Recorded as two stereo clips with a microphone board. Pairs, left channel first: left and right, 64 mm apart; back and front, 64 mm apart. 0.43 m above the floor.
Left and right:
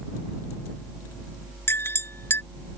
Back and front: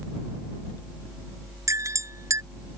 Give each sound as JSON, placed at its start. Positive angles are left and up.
{"t": 1.7, "sound": "a clink", "azimuth_deg": 40}